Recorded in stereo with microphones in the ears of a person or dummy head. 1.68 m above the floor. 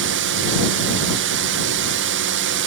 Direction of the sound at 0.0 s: 60° right (ahead or behind).